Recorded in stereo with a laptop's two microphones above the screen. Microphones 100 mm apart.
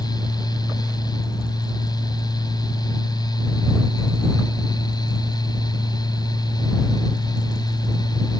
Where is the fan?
45° left (ahead or behind).